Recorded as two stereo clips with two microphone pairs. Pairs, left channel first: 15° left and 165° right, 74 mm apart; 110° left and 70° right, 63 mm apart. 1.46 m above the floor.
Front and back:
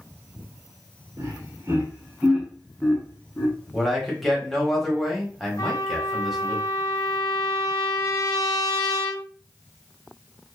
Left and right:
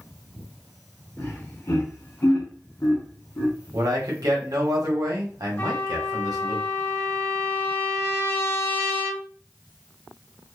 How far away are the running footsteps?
No running footsteps in this recording.